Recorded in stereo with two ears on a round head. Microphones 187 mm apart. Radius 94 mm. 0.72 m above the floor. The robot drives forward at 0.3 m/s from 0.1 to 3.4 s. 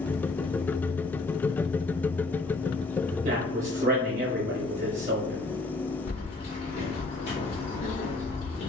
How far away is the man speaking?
About 0.7 m.